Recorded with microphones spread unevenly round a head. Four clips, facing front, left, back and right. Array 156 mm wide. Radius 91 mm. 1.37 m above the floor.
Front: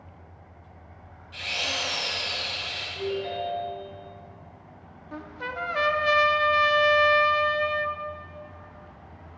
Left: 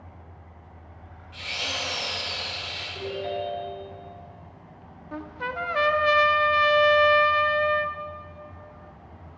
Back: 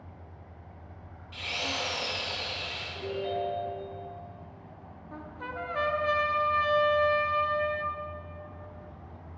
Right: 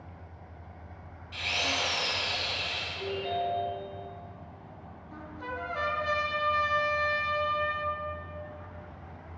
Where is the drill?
155° right, 3.5 m.